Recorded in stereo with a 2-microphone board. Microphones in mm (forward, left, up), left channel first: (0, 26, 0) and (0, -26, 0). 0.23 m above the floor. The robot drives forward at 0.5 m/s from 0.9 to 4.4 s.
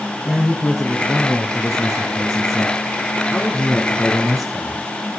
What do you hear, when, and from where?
0.2 s a man speaking: 5° left (ahead or behind), 4 m